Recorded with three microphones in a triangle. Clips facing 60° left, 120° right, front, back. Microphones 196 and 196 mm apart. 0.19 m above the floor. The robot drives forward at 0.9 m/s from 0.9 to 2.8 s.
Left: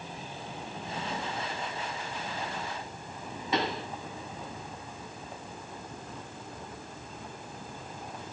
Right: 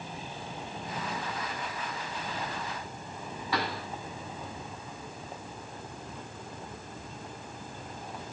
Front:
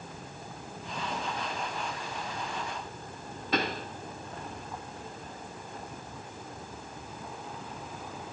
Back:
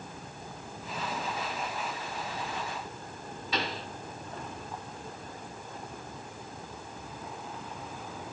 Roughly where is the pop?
Ahead.